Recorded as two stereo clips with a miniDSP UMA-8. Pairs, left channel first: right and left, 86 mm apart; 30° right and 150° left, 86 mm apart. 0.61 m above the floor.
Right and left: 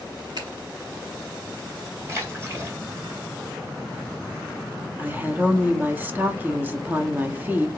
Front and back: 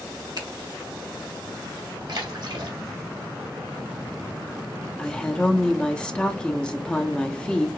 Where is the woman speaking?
40° left, 0.7 m.